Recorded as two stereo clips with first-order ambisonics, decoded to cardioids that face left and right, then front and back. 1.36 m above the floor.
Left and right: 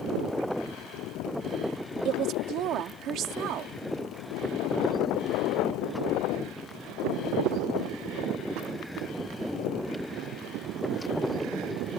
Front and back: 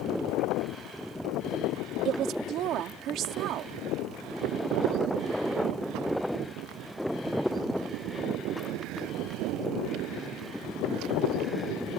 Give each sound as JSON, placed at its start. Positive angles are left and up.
{"t": 2.0, "sound": "a woman speaking", "azimuth_deg": -135}